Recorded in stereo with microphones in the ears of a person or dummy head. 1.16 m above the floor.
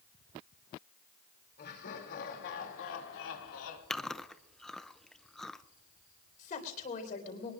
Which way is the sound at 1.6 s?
50° left (ahead or behind).